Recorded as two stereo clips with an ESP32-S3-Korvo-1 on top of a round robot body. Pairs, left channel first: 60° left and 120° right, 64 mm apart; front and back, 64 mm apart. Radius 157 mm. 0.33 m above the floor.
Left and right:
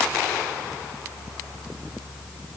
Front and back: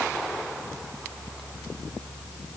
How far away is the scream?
I don't hear a scream.